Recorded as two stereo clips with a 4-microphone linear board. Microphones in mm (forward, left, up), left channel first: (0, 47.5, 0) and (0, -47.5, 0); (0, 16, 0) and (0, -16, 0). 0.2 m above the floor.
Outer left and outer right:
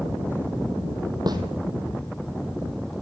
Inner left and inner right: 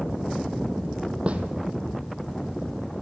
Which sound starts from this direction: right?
A snare drum, at 1.3 s.